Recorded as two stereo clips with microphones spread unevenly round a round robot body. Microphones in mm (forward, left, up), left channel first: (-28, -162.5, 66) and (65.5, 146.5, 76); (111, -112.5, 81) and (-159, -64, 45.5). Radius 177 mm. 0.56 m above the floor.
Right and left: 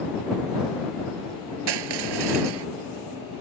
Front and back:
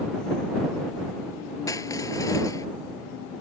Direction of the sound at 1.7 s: 70° left.